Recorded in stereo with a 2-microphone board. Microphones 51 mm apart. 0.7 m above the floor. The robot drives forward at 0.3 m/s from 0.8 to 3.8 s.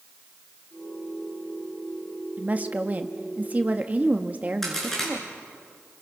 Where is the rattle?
No rattle in this recording.